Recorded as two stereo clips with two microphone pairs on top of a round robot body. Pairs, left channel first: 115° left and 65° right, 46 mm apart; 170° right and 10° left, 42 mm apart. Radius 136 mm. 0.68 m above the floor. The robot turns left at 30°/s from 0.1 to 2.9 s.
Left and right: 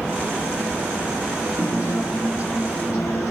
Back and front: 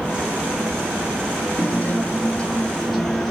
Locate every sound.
1.6 s a guitar: 150° left, 3 m; by 3.3 s 110° left, 3 m